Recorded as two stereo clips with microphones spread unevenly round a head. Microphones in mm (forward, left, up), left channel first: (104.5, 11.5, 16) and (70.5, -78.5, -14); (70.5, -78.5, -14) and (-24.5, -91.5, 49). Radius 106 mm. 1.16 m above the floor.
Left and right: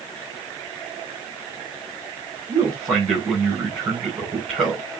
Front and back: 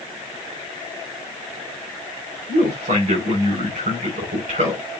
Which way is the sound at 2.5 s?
160° left.